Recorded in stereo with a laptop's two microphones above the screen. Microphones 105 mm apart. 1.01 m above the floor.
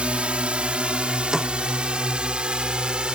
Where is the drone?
10° right (ahead or behind).